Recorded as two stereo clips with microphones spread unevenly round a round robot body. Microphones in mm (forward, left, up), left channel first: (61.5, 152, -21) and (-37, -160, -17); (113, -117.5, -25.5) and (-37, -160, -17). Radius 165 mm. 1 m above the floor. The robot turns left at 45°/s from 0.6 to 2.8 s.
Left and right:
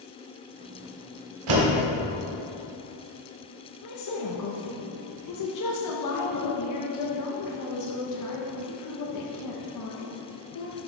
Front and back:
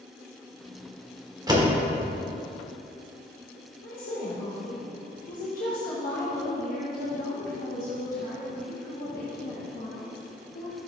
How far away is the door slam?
About 2 m.